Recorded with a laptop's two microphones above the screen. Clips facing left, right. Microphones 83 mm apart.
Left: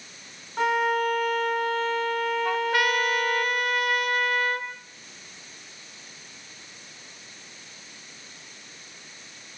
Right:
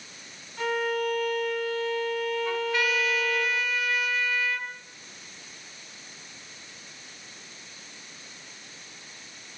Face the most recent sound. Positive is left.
turn(degrees=60)  # may be behind; listen again after turning